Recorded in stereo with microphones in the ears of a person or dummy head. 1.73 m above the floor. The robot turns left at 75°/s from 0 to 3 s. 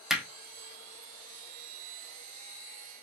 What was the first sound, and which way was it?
Hammering, centre (ahead or behind).